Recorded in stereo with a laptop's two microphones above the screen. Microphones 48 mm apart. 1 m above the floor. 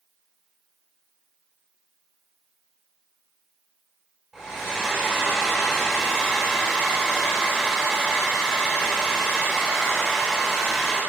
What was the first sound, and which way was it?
A hair dryer, 15° right (ahead or behind).